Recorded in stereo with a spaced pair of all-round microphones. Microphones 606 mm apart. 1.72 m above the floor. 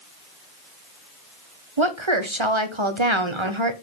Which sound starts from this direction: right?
A woman speaking, at 1.8 s.